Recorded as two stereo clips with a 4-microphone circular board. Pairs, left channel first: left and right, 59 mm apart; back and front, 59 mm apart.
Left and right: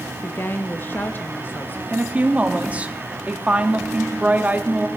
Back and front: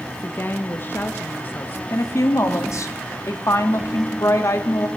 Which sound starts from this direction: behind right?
A woman speaking, at 1.9 s.